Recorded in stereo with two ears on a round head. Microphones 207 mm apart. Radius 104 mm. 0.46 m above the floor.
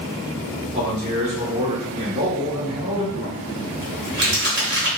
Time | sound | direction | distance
0.7 | a man speaking | 30° right (ahead or behind) | 0.9 m
3.1 | crumpling | 45° right (ahead or behind) | 1.2 m